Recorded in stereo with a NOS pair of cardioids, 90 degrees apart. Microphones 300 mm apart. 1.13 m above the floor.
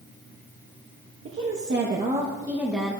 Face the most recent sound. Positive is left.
turn(degrees=5)